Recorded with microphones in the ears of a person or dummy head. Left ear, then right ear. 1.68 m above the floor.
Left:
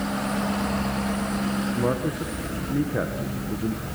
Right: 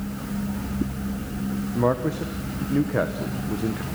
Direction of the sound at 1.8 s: 30° right (ahead or behind).